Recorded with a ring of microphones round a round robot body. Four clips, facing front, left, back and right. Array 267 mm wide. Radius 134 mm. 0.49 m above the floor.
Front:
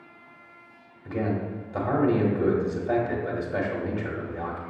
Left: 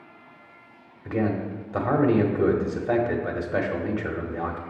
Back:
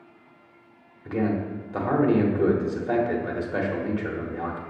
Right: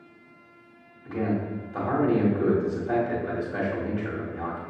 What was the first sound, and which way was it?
A man speaking, 110° left.